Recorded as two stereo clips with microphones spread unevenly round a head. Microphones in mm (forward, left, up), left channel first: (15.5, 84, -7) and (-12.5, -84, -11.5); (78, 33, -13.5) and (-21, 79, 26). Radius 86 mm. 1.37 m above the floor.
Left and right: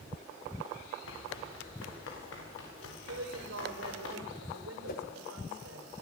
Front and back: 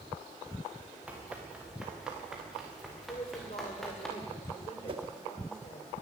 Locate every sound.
1.1 s running footsteps: 80° left, 8 m; by 4.1 s 65° left, 9 m
3.1 s a woman speaking: 80° right, 6 m
4.9 s a whoosh: 120° left, 3 m